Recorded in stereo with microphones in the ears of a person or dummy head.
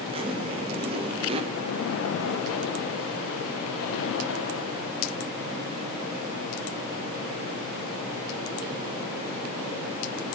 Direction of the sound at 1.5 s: 70° left (ahead or behind).